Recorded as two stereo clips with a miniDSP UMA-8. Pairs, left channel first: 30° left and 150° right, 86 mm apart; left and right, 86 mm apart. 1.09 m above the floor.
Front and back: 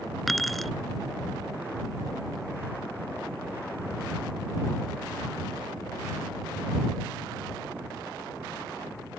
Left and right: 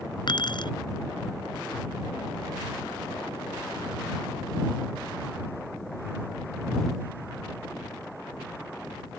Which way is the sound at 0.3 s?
120° left.